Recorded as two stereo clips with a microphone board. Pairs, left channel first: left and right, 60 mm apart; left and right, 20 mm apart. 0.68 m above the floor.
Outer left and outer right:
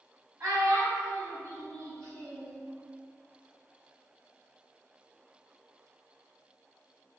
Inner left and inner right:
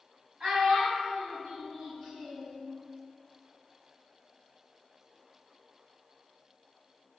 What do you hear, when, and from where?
0.4 s a child speaking: 60° right (ahead or behind), 1.4 m; by 2.6 s 35° right (ahead or behind), 0.9 m